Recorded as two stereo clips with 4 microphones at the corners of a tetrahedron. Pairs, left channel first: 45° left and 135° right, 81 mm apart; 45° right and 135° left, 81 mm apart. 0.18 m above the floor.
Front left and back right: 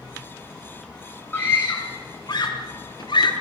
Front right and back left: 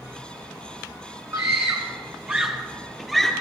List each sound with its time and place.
1.3 s a scream: 100° left, 1.8 m; by 3.3 s 45° left, 2.5 m